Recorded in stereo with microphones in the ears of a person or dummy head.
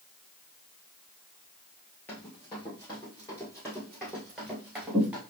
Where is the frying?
No frying in this recording.